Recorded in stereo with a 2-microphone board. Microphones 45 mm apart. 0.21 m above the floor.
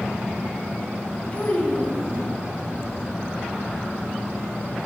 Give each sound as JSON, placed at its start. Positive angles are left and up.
{"t": 1.3, "sound": "a child speaking", "side_deg": 40, "distance_m": 0.9}